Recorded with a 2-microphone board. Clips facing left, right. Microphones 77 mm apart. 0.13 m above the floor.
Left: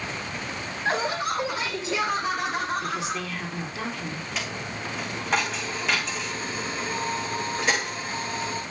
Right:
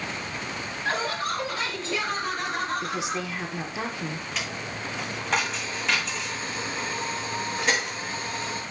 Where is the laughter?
20° left (ahead or behind), 6 m; by 3.3 s centre (ahead or behind), 5.5 m.